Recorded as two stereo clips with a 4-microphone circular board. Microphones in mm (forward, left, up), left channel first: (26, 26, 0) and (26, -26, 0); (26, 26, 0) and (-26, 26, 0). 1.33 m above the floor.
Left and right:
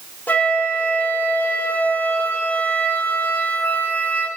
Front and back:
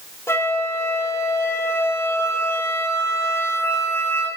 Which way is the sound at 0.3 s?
30° left.